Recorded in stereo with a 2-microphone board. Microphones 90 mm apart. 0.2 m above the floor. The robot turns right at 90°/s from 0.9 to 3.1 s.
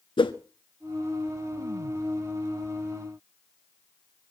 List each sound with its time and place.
0.2 s a whoosh: 70° left (ahead or behind), 0.9 m